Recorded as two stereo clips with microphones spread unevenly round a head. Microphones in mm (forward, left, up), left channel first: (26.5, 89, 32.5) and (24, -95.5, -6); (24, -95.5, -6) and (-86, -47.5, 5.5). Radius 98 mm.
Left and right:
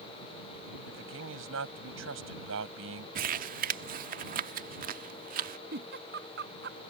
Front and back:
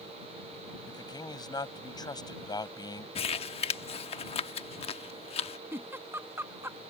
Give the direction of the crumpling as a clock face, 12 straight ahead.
2 o'clock.